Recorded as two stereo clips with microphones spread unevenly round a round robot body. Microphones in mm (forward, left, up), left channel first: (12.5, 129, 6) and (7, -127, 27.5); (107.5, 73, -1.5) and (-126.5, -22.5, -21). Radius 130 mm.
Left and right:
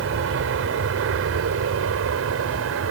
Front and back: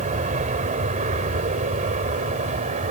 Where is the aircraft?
105° right; by 2.9 s 100° right.